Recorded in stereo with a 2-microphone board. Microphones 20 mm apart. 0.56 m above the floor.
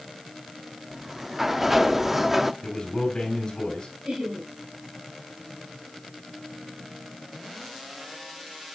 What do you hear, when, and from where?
0.9 s a sliding door: 10° right (ahead or behind), 0.5 m
2.6 s a man speaking: 40° left (ahead or behind), 3 m
4.0 s laughter: 60° right (ahead or behind), 4 m